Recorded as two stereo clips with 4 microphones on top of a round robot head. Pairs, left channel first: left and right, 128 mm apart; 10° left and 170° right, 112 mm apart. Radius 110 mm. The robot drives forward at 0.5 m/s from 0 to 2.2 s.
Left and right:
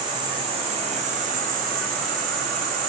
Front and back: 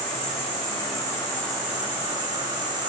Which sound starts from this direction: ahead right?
An insect, at 0.0 s.